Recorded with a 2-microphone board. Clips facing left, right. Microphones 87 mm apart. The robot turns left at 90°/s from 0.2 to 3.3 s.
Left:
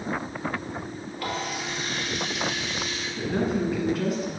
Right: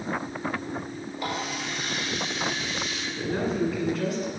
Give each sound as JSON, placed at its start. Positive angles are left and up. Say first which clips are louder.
{"t": 1.2, "sound": "a running tap", "louder": "left 1 dB", "azimuth_deg": -155, "distance_m": 2.0}
{"t": 3.1, "sound": "a woman speaking", "louder": "left 1 dB", "side_deg": 0, "distance_m": 1.7}